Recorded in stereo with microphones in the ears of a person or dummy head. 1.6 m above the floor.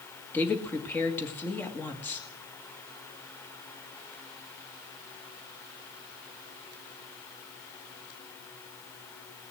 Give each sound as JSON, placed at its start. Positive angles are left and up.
{"t": 0.3, "sound": "a woman speaking", "side_deg": 15, "distance_m": 1.7}